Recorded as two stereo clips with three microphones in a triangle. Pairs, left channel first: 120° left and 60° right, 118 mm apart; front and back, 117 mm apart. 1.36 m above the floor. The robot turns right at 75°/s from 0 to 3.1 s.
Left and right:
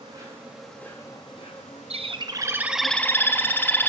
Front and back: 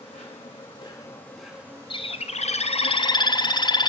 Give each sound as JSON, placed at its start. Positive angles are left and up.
{"t": 0.0, "sound": "an insect", "azimuth_deg": -20, "distance_m": 4.5}
{"t": 1.9, "sound": "a bird", "azimuth_deg": -40, "distance_m": 0.6}